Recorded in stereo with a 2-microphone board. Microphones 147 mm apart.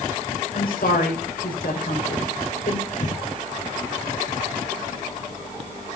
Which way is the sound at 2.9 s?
55° left (ahead or behind).